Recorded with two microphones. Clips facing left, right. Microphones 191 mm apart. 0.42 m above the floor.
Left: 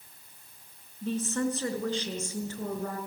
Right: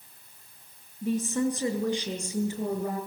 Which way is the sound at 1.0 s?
10° right (ahead or behind).